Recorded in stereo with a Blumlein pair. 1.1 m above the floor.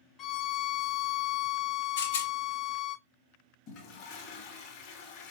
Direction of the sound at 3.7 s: 40° left.